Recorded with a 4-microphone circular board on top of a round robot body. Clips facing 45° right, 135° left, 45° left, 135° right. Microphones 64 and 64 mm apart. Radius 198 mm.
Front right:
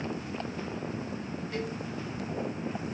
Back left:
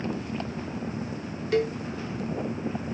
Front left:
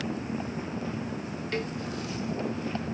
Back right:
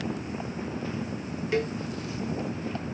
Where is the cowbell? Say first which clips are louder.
Back left 12 dB, back right 5 dB; 150° left, 0.5 m.